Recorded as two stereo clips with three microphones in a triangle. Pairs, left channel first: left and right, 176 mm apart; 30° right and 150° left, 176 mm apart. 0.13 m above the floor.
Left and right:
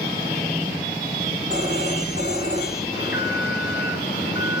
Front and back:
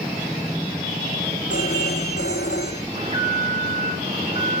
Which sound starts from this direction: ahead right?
A phone ringing, at 1.5 s.